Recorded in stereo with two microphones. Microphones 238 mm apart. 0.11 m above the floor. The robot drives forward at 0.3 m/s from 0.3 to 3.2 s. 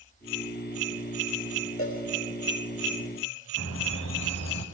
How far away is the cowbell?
About 4.5 m.